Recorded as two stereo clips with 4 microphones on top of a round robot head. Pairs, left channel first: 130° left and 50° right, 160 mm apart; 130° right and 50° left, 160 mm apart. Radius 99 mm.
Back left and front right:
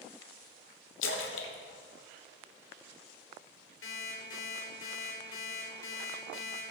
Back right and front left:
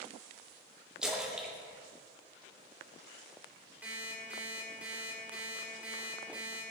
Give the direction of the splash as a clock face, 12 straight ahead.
8 o'clock.